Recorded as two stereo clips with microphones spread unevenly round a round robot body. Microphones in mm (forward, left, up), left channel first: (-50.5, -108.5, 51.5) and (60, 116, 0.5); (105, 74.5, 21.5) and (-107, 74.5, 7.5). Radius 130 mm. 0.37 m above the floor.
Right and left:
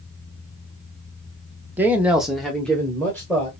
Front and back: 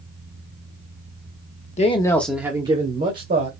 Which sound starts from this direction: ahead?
A man speaking, at 1.8 s.